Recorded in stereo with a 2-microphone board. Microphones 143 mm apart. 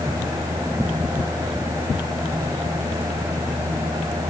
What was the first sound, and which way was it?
Only background noise.